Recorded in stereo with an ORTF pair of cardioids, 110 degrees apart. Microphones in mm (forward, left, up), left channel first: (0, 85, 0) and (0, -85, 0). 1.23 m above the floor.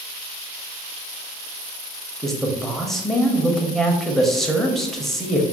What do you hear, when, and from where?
2.2 s a man speaking: straight ahead, 0.6 m